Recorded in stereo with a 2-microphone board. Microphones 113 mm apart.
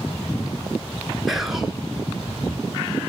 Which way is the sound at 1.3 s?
5° right (ahead or behind).